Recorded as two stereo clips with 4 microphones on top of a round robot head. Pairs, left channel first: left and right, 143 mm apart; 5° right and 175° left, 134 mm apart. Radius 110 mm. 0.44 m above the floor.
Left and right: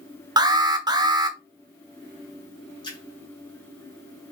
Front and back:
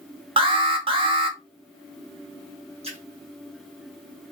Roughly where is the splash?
Behind left.